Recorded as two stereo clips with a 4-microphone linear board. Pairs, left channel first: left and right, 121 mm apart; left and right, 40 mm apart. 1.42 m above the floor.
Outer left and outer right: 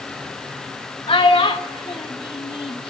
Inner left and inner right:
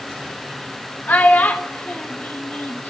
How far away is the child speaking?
About 1.0 m.